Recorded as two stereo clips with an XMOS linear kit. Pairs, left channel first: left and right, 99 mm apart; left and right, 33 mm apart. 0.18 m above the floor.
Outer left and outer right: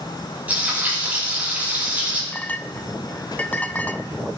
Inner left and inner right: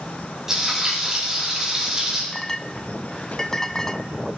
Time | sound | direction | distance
0.5 | frying | 15° right (ahead or behind) | 5.5 m
2.3 | a clink | 20° left (ahead or behind) | 0.7 m